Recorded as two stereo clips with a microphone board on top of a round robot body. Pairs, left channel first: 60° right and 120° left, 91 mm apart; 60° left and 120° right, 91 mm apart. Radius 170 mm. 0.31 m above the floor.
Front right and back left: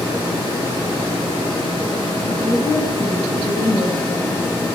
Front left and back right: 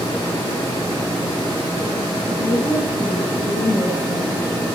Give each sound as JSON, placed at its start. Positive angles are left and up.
{"t": 2.3, "sound": "a woman speaking", "azimuth_deg": 15, "distance_m": 4.0}